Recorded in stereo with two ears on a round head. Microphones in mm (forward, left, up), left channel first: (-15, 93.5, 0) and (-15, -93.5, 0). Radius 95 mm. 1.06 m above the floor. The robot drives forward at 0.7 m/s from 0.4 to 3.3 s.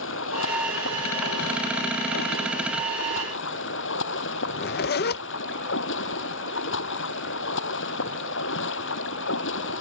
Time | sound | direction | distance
0.0 | running water | 70° left (ahead or behind) | ?
4.5 | a zipper | 50° left (ahead or behind) | ?